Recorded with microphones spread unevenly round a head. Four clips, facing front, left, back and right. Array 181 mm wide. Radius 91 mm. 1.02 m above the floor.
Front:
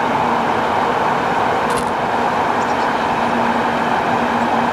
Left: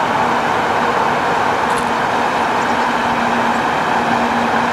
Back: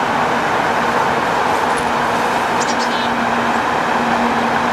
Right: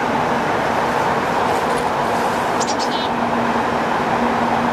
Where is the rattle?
Straight ahead.